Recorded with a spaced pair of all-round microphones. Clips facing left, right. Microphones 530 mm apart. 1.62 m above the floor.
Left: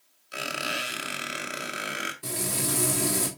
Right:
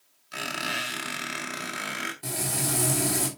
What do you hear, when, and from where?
0.3 s a squeak: 20° right (ahead or behind), 2 m
2.2 s frying: 10° right (ahead or behind), 3.5 m